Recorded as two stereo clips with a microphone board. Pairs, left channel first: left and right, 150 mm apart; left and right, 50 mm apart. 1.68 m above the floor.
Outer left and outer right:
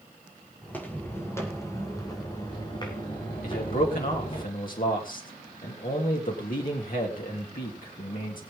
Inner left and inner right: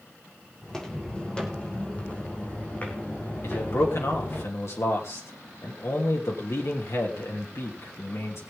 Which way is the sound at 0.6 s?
10° left (ahead or behind).